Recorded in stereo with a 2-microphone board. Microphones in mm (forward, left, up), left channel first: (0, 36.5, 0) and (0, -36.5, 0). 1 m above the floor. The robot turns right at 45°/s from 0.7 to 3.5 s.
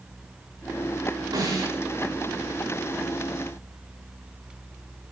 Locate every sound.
1.3 s a snare drum: 80° right, 5 m; by 1.7 s 65° right (ahead or behind), 5 m